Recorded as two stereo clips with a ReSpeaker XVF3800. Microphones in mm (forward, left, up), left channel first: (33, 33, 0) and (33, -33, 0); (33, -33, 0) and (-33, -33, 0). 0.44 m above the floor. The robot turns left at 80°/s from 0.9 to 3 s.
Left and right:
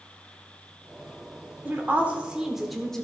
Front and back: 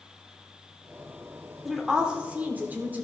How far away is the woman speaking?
About 1.1 m.